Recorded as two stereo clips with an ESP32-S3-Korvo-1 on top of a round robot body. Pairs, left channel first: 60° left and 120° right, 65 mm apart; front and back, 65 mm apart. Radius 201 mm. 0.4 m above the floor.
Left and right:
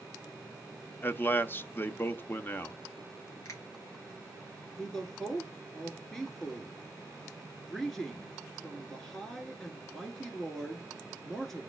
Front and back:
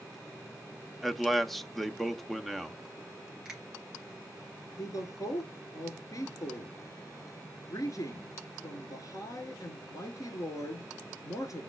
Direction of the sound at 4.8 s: 15° right.